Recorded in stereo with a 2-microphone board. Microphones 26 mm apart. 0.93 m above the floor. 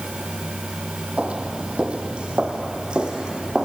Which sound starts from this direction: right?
Footsteps, at 1.2 s.